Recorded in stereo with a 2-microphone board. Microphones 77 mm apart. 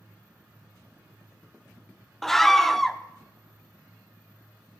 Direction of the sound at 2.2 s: 5° left (ahead or behind).